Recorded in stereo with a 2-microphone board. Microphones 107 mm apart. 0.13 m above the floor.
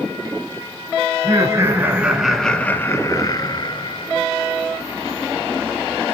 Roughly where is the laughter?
Right.